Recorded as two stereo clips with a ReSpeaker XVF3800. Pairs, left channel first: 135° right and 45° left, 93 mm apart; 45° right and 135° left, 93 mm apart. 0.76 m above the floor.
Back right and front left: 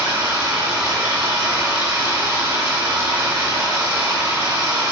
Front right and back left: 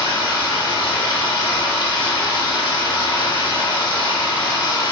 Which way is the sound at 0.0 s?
15° right.